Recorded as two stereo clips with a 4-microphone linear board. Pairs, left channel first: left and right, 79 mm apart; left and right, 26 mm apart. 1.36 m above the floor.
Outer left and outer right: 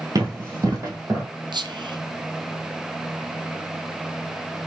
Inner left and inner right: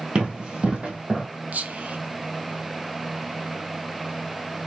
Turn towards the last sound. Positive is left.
turn(degrees=-70)  # may be behind; listen again after turning